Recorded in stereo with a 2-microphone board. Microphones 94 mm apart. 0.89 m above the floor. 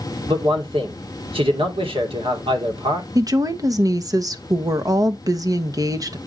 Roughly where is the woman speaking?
Right.